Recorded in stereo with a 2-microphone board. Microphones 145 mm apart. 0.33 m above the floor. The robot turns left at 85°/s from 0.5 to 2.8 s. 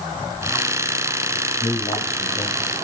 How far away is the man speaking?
About 1.8 m.